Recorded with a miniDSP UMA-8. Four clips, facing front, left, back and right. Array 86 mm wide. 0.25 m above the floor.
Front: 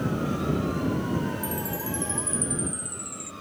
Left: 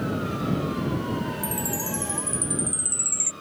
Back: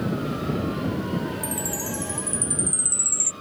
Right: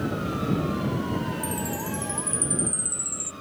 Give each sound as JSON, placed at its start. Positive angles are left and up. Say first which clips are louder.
{"t": 1.4, "sound": "a chime", "louder": "even, back 1 dB", "azimuth_deg": 110}